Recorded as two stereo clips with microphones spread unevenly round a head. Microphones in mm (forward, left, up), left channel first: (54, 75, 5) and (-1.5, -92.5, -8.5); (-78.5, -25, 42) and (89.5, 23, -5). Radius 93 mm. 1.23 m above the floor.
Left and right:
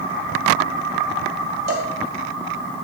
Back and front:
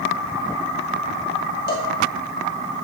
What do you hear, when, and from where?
1.7 s a cowbell: 140° right, 1.7 m